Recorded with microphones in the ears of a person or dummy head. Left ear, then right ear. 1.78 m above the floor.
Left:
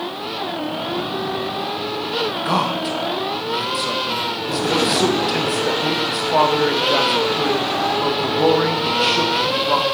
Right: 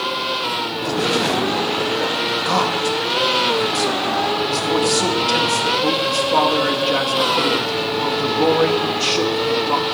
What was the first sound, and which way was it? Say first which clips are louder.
A man speaking: right 3 dB; centre (ahead or behind).